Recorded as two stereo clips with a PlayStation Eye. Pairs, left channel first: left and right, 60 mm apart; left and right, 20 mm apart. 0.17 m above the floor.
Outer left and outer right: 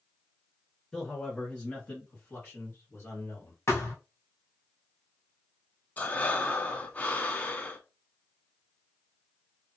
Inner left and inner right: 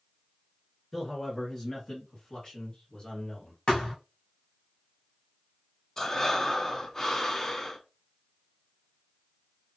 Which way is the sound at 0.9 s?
10° left (ahead or behind).